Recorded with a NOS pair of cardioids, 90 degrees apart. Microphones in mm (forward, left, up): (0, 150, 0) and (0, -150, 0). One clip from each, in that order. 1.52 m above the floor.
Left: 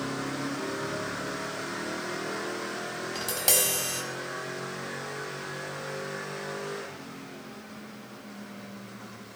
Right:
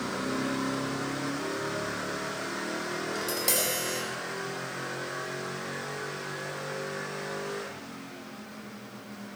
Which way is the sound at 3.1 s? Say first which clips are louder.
Left 3 dB; 25° left.